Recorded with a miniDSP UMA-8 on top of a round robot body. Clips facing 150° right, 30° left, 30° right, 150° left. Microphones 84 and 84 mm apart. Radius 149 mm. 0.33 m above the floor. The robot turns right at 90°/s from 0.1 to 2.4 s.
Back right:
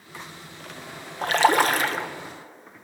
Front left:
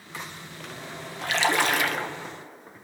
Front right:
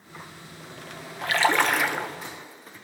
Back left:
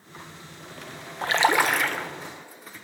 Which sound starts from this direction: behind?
A splash, at 1.2 s.